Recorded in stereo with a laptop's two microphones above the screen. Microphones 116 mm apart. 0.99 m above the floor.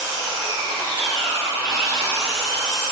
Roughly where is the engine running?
Right.